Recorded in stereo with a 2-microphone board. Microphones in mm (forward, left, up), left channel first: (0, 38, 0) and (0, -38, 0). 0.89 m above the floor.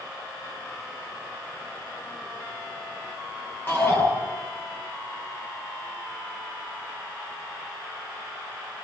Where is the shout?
25° left (ahead or behind), 10 m.